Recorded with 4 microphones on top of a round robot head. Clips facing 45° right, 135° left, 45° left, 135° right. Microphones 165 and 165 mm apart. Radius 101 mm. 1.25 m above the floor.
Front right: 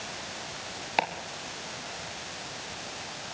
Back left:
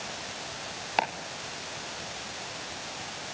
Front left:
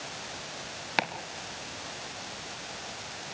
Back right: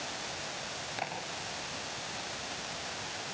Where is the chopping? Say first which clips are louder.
Even, front left 7 dB; 40° left, 3.5 m.